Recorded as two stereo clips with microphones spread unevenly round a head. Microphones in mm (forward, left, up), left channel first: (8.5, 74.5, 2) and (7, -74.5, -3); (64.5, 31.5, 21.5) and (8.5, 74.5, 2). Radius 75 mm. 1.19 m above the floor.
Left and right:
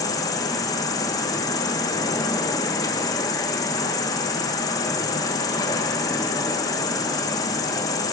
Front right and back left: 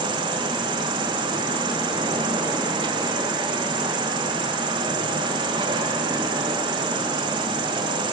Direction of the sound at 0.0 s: 160° left.